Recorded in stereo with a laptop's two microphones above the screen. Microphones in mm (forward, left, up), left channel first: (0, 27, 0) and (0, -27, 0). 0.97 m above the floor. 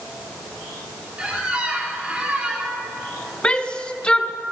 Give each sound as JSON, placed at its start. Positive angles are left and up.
{"t": 1.2, "sound": "a squeak", "side_deg": -20, "distance_m": 1.8}
{"t": 3.4, "sound": "a shout", "side_deg": 20, "distance_m": 0.9}